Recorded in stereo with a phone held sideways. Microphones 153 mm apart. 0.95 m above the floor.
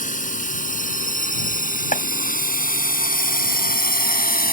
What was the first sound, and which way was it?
A drone, 55° left (ahead or behind).